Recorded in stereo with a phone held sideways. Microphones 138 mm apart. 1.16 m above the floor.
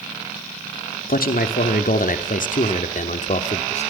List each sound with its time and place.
1.1 s a man speaking: 85° left, 2.5 m; by 3.9 s 50° left (ahead or behind), 3 m